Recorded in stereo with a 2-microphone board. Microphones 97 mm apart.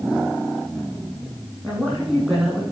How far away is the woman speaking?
About 7 m.